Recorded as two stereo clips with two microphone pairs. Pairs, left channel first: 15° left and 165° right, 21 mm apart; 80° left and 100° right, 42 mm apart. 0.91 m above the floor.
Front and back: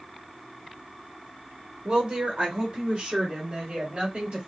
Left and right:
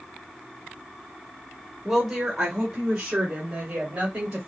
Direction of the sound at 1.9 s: 170° right.